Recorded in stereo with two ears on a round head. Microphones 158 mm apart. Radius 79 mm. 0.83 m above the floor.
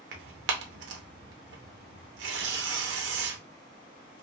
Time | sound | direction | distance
0.1 | tearing paper | 70° right (ahead or behind) | 0.7 m